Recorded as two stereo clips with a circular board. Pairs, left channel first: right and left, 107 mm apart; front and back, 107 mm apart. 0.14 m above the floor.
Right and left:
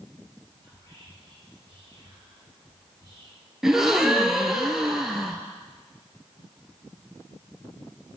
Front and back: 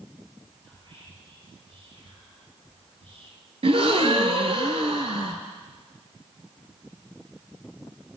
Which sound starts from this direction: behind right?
Whispering, at 0.6 s.